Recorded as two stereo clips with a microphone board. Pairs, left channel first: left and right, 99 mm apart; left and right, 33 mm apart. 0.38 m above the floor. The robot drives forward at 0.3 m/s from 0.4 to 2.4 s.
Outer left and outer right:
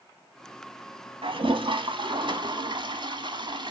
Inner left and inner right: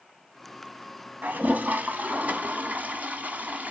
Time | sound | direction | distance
1.2 | a toilet flushing | 70° right (ahead or behind) | 1.4 m